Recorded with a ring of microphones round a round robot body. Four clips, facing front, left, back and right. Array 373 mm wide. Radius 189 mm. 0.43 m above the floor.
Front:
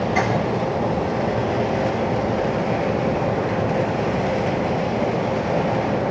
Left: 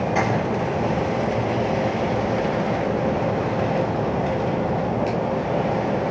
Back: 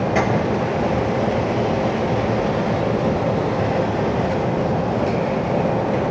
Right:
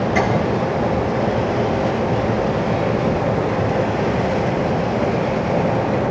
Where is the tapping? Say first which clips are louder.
Right 3 dB, back 2 dB; 145° right, 8 m.